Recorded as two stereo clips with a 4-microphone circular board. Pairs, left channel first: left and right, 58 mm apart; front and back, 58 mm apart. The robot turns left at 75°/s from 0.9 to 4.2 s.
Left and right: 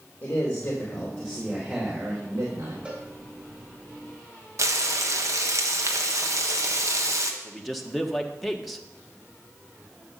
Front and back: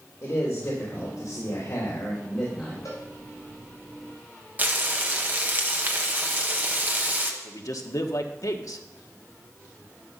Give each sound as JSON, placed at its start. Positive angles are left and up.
{"t": 0.2, "sound": "a man speaking", "azimuth_deg": 55, "distance_m": 3.0}
{"t": 2.9, "sound": "a cowbell", "azimuth_deg": -20, "distance_m": 4.0}
{"t": 4.6, "sound": "frying", "azimuth_deg": -120, "distance_m": 1.3}
{"t": 7.4, "sound": "a man speaking", "azimuth_deg": 0, "distance_m": 1.3}